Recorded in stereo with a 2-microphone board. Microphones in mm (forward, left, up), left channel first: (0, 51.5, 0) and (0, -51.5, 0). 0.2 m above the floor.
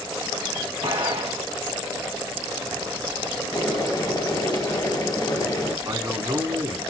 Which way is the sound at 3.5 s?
45° left (ahead or behind).